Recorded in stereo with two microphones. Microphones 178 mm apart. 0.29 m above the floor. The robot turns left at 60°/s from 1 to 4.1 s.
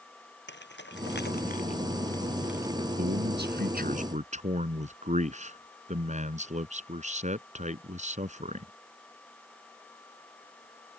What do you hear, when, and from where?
0.5 s keys jangling: 80° left; by 2.9 s 30° right (ahead or behind)
3.0 s a man speaking: 65° right; by 8.7 s 135° right